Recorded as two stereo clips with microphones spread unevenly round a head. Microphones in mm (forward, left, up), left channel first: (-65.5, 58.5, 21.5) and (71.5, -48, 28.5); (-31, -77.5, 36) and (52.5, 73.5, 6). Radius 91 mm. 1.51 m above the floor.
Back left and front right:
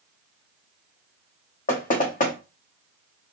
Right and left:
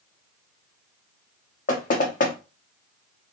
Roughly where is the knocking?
Behind.